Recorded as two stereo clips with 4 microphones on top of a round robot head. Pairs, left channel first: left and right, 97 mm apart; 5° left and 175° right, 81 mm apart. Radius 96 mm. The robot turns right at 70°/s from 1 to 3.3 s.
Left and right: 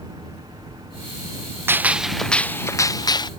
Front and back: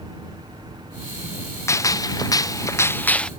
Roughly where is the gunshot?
Ahead right.